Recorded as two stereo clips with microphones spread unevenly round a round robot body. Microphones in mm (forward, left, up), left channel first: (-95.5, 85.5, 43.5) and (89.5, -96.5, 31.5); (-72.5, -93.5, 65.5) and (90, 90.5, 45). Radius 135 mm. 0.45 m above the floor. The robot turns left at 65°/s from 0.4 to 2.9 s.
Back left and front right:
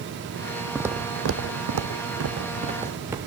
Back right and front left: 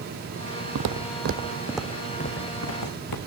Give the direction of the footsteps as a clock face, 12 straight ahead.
10 o'clock.